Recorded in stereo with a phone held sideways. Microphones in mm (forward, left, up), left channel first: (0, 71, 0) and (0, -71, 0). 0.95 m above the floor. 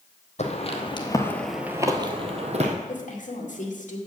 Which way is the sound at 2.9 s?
65° left (ahead or behind).